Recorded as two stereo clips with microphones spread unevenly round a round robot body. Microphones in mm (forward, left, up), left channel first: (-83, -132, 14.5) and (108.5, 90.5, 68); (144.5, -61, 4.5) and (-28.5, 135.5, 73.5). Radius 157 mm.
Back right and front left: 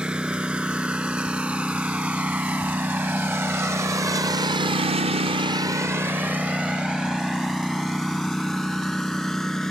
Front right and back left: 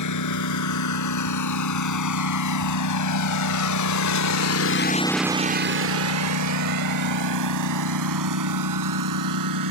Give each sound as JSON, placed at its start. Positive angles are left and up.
{"t": 0.0, "sound": "a lawn mower", "azimuth_deg": -35}